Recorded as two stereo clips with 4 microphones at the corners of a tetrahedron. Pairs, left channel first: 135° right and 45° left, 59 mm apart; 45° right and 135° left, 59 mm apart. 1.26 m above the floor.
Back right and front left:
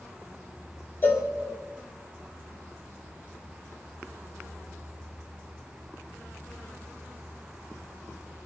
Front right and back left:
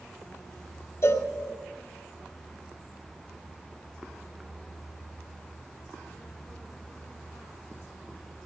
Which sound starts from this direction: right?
A cowbell, at 1.0 s.